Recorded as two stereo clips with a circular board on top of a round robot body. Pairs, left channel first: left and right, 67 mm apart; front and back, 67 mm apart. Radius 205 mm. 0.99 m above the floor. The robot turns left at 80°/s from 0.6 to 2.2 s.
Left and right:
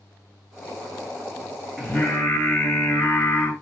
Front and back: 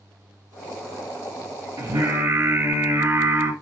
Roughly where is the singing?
Behind.